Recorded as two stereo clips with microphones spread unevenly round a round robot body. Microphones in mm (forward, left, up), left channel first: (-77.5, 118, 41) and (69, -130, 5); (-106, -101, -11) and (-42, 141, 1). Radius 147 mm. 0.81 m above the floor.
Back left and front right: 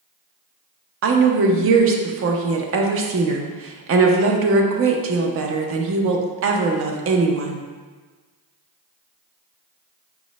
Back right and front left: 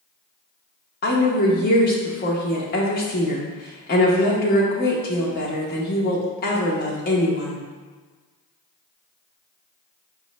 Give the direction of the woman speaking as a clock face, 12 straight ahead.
2 o'clock.